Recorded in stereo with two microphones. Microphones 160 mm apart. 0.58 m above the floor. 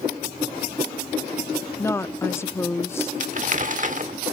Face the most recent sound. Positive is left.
turn(degrees=-50)  # may be behind; listen again after turning